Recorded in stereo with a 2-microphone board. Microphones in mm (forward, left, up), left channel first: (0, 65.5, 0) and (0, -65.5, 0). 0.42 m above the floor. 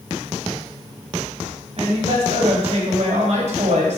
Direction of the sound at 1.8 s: 50° right (ahead or behind).